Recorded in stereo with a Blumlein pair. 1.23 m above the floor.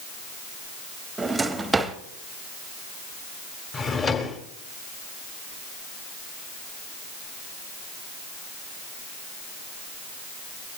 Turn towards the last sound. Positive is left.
turn(degrees=20)